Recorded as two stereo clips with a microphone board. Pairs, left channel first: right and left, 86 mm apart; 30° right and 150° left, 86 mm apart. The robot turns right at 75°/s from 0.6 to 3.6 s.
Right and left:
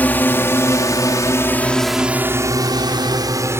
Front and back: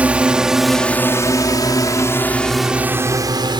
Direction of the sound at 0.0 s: 145° right.